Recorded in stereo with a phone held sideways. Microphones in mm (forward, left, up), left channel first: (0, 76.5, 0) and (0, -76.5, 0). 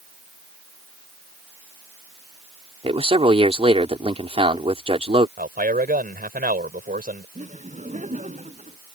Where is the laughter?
50° right (ahead or behind).